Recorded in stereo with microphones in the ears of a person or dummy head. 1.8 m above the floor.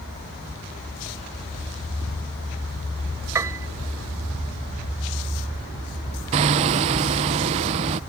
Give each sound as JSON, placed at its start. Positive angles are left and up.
{"t": 3.4, "sound": "a piano", "side_deg": -15}
{"t": 6.3, "sound": "hammering", "side_deg": -30}